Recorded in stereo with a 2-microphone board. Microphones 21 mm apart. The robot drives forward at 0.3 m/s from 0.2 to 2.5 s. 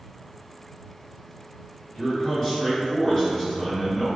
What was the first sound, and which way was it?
A man speaking, 25° left (ahead or behind).